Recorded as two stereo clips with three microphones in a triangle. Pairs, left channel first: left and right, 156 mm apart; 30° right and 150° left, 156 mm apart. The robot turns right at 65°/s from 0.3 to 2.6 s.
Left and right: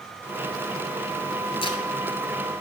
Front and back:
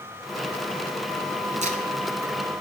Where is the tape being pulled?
130° left, 0.9 m; by 1.8 s 145° left, 0.9 m.